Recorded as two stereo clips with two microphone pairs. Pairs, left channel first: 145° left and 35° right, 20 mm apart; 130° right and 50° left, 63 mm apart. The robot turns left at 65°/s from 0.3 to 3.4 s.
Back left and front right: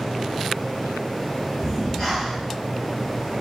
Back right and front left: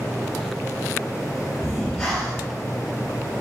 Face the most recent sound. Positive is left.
turn(degrees=70)